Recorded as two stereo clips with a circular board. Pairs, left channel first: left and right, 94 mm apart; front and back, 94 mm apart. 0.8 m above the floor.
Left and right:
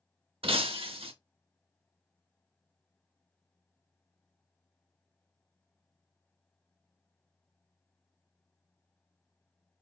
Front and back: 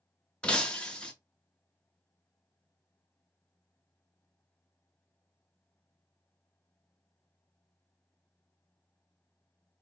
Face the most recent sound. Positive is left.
turn(degrees=-80)